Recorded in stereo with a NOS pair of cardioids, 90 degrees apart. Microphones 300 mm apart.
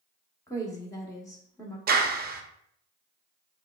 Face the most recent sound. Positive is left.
turn(degrees=-30)